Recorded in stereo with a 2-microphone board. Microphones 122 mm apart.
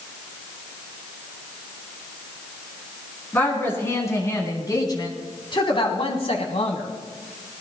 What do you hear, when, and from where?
3.3 s a woman speaking: 20° left (ahead or behind), 4 m; by 6.9 s 65° left (ahead or behind), 3 m